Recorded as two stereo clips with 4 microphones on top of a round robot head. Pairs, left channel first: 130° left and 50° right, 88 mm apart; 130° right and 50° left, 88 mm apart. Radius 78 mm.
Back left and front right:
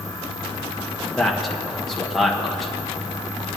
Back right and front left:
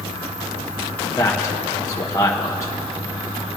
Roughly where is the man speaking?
Behind right.